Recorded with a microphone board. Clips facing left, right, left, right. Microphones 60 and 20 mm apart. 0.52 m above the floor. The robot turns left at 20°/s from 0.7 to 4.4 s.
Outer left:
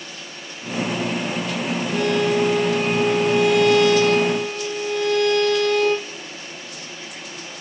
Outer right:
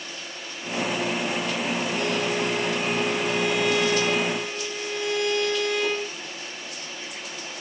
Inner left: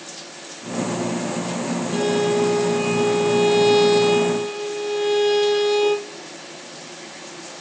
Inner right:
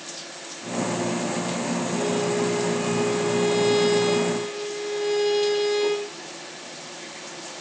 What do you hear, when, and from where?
1.9 s a violin: 110° left, 7 m; by 6.2 s 60° left, 7 m